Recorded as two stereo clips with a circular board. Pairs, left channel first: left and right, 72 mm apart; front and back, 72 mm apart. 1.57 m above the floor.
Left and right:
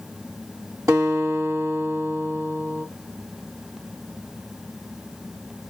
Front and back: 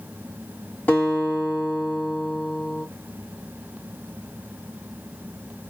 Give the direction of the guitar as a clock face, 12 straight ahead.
2 o'clock.